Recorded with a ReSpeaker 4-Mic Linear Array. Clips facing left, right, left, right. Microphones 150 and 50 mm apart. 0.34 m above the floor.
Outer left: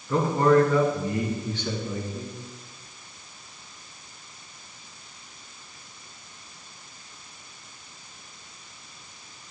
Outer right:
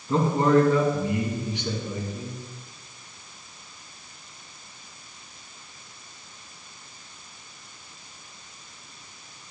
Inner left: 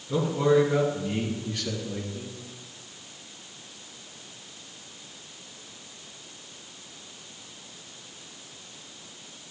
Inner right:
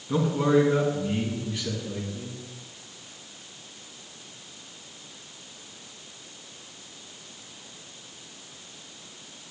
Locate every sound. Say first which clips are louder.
0.1 s a man speaking: even, even; 30° right (ahead or behind), 3 m; by 2.4 s 10° right (ahead or behind), 4 m